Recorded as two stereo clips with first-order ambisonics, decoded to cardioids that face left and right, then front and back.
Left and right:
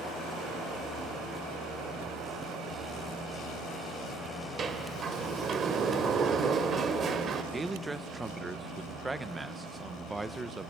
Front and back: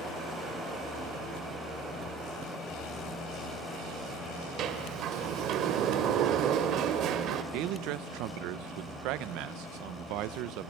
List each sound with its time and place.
4.6 s a sliding door: 150° right, 1.2 m
7.5 s a man speaking: 170° right, 0.7 m